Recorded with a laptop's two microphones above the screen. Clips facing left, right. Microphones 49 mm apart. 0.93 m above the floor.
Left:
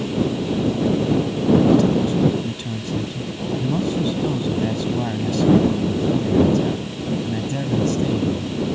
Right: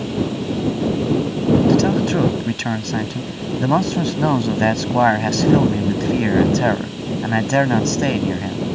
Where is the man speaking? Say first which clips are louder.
Right 1 dB; 75° right (ahead or behind).